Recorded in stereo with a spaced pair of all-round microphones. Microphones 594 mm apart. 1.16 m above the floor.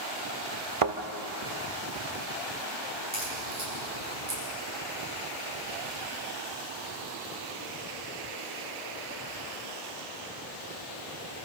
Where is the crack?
85° right, 9 m.